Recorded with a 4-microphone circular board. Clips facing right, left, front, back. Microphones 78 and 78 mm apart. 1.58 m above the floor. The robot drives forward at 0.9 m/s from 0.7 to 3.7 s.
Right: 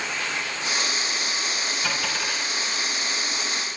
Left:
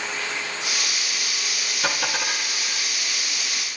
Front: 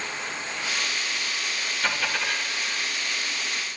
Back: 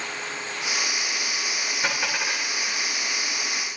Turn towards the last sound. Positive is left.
turn(degrees=120)